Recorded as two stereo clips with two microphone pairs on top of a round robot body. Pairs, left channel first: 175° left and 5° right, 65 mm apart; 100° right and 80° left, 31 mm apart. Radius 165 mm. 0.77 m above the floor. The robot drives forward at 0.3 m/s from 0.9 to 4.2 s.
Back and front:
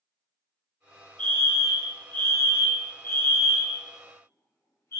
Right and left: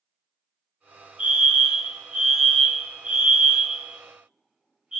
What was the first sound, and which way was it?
A fire alarm, 110° left.